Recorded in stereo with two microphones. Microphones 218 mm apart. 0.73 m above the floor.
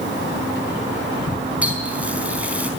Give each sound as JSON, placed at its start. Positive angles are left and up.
{"t": 1.6, "sound": "a running tap", "side_deg": -5, "distance_m": 4.0}